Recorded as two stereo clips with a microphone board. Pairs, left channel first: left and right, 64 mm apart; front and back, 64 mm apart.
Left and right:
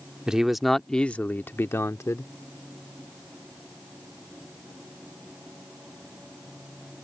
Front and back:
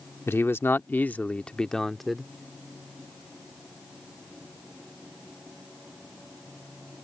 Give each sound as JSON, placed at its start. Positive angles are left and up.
{"t": 0.3, "sound": "a man speaking", "azimuth_deg": -20}